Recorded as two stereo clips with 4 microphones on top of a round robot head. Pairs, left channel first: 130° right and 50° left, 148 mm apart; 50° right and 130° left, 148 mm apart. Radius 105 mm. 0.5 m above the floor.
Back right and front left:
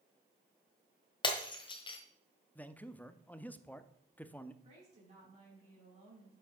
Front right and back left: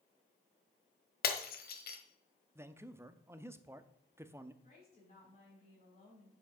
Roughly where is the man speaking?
Behind.